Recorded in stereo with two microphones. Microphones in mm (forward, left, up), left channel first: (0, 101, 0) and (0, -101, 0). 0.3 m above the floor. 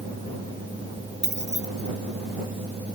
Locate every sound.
1.2 s keys jangling: 35° right (ahead or behind)